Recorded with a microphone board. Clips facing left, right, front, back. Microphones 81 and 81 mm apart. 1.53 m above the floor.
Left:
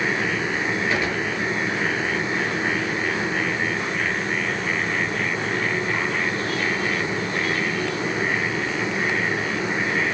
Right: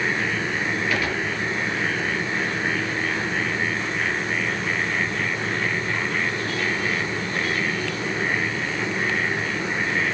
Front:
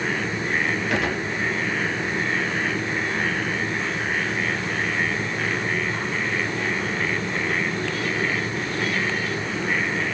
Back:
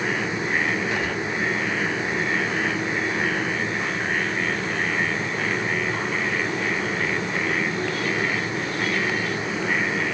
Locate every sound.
0.9 s a gunshot: 25° left, 6 m